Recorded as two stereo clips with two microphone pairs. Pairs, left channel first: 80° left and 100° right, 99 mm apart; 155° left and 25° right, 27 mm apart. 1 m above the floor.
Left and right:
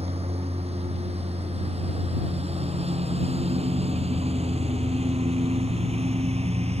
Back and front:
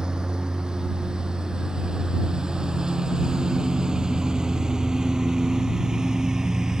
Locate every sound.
0.0 s a lawn mower: 85° right; by 6.8 s 90° right